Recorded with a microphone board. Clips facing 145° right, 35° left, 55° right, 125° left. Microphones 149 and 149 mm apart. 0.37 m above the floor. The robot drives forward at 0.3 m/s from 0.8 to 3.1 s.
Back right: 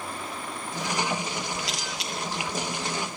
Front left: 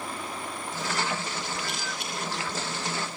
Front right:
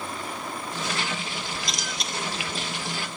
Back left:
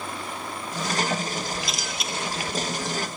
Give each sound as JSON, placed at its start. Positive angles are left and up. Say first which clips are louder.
{"t": 1.6, "sound": "a camera shutter", "louder": "back right 1 dB, back left 1 dB", "azimuth_deg": -150, "distance_m": 7.5}